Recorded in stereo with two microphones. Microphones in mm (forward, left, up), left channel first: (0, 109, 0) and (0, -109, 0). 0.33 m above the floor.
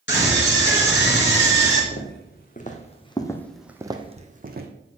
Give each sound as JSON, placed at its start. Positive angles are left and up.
{"t": 0.1, "sound": "a scream", "side_deg": 55, "distance_m": 4.0}
{"t": 1.9, "sound": "footsteps", "side_deg": 50, "distance_m": 2.0}